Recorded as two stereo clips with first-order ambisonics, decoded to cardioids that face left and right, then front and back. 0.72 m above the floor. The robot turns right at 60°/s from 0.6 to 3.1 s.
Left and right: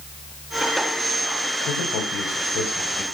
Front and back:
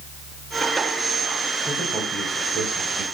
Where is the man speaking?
70° left, 4 m; by 3.0 s 155° left, 4 m.